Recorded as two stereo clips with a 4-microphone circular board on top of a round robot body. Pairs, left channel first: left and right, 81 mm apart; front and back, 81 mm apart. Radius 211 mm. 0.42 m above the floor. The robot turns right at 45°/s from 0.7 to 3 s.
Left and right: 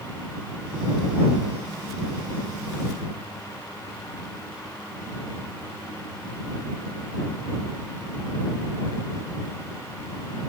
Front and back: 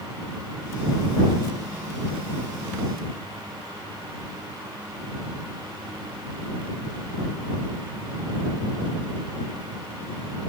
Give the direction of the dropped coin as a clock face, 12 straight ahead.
I don't hear a dropped coin.